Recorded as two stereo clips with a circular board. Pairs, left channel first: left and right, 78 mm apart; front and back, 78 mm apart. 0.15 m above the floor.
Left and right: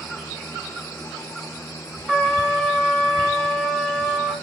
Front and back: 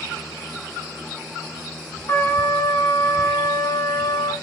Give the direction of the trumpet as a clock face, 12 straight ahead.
12 o'clock.